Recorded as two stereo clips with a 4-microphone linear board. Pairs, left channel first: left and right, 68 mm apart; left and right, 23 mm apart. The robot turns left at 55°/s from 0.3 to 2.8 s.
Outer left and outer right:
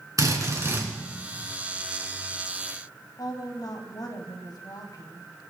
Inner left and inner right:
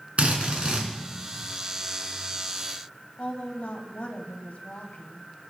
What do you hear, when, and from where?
0.2 s a drill: 120° right, 4 m; by 0.9 s 155° right, 4 m
3.2 s a woman speaking: 70° left (ahead or behind), 2.5 m